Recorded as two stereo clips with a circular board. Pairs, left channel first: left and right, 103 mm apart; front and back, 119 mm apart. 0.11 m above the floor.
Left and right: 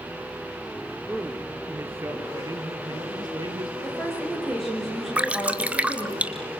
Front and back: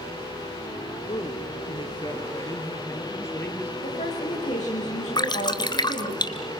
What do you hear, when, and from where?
1.1 s a man speaking: 15° right, 3 m; by 3.7 s 70° right, 2.5 m
3.8 s a woman speaking: straight ahead, 9 m
5.2 s dripping: 20° right, 1.5 m